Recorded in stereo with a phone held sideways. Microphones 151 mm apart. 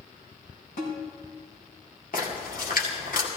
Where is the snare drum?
70° left (ahead or behind), 5 m.